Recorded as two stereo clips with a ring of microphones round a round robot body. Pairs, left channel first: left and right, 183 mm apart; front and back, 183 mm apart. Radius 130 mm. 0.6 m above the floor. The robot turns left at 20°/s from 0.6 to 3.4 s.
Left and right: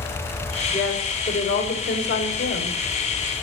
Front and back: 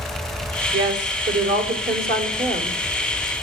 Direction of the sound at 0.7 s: 170° left.